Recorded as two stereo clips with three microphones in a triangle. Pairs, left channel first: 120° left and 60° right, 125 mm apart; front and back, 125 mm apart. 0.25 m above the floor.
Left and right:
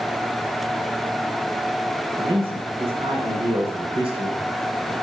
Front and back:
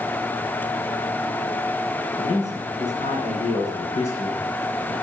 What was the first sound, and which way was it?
A man speaking, 20° right.